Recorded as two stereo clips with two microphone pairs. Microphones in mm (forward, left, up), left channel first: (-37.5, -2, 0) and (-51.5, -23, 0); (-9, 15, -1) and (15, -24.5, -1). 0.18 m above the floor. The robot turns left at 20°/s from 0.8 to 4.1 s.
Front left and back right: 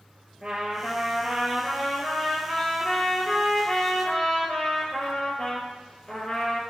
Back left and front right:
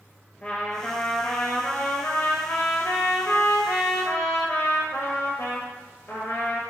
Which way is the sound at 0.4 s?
Straight behind.